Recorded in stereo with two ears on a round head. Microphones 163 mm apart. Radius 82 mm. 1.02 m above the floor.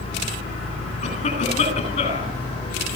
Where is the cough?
35° left (ahead or behind), 9.5 m.